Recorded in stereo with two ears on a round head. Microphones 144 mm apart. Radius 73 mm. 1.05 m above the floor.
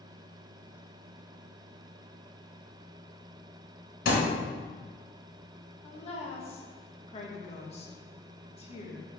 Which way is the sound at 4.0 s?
65° left (ahead or behind).